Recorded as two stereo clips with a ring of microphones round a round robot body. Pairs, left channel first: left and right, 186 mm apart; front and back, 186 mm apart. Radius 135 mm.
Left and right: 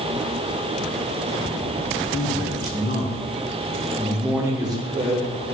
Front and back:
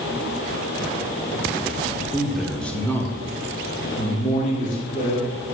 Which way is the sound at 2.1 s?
90° left.